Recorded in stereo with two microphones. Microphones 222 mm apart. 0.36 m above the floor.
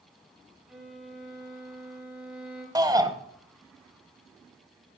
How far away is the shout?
About 1.4 m.